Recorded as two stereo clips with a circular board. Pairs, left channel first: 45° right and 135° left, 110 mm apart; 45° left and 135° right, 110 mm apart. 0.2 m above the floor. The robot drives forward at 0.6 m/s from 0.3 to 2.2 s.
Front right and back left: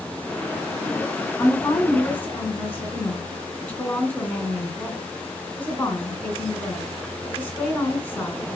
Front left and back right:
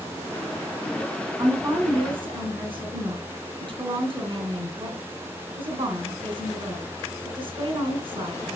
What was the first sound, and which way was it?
A woman speaking, 100° right.